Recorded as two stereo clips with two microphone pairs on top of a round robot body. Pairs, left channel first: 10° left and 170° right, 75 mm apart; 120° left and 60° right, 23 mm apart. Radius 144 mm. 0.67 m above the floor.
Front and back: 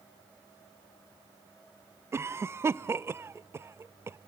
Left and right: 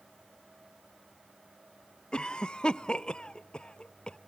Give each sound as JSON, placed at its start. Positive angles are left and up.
{"t": 2.1, "sound": "a cough", "azimuth_deg": 140, "distance_m": 0.5}